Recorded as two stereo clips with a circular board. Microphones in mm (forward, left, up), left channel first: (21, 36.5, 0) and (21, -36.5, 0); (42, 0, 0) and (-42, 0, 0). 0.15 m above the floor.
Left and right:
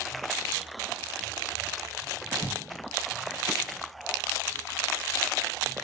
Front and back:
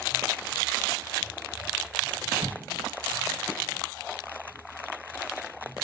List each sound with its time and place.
2.4 s an explosion: 115° left, 0.9 m